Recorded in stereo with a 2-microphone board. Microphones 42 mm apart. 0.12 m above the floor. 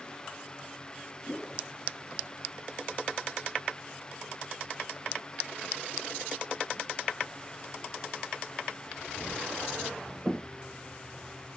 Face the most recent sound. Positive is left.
turn(degrees=25)  # may be behind; listen again after turning